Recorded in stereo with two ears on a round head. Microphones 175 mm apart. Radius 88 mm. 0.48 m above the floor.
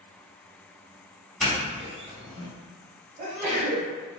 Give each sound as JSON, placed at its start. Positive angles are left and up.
{"t": 1.4, "sound": "a doorbell", "side_deg": 0, "distance_m": 1.2}
{"t": 3.2, "sound": "a sneeze", "side_deg": -40, "distance_m": 1.8}